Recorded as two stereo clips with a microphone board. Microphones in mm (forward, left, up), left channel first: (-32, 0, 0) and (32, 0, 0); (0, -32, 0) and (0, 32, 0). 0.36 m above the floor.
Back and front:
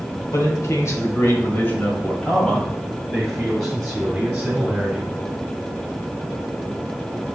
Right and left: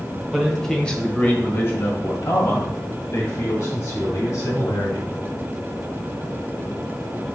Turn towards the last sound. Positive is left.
turn(degrees=-75)